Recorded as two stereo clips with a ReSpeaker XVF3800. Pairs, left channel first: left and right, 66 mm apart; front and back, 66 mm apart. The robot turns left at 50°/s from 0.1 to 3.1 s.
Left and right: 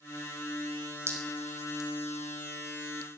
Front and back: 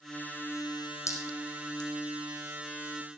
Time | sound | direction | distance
1.1 | dripping | 40° right | 3.5 m